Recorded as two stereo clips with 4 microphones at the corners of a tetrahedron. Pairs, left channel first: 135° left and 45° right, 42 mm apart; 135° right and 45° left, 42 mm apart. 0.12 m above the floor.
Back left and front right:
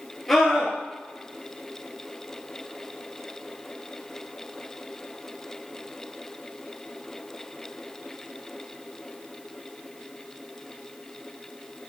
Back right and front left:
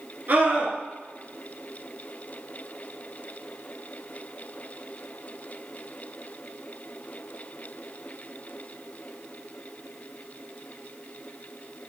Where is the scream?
50° left, 2.5 m.